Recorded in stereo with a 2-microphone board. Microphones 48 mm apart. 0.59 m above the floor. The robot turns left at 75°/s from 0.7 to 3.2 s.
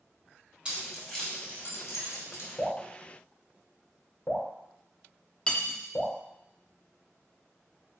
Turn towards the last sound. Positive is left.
turn(degrees=20)  # may be behind; listen again after turning